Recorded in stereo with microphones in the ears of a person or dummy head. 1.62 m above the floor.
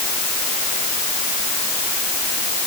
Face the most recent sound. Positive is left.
No sound to turn to.